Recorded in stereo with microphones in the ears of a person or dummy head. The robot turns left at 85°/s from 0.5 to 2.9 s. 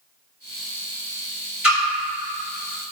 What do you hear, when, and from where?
1.6 s a splash: 10° right (ahead or behind), 1.3 m; by 1.8 s 5° left (ahead or behind), 1.3 m